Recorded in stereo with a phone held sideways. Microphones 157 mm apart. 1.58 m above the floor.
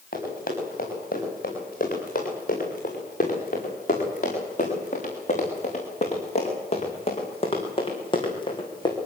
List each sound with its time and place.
0.1 s running footsteps: 65° left (ahead or behind), 9.5 m; by 9.0 s 25° left (ahead or behind), 5.5 m